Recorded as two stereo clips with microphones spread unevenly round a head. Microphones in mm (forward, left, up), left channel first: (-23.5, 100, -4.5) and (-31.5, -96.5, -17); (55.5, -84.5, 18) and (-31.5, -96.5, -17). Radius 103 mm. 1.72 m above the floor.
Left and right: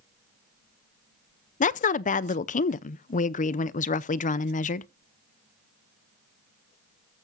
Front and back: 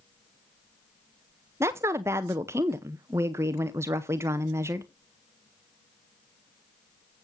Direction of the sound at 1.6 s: 105° left.